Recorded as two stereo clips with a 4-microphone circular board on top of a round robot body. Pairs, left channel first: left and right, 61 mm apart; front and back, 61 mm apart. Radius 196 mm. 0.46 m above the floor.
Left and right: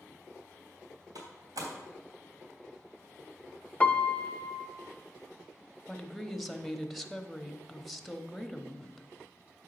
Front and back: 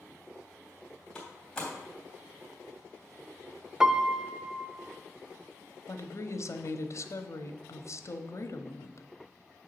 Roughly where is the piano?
Behind left.